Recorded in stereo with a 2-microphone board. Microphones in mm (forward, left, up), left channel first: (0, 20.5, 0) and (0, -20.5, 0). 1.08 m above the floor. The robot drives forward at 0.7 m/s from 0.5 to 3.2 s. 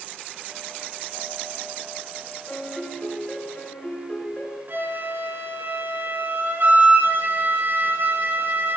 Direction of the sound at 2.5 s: 45° left (ahead or behind).